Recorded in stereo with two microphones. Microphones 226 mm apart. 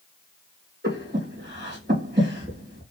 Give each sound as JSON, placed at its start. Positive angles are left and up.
{"t": 0.8, "sound": "breathing", "side_deg": -50, "distance_m": 2.5}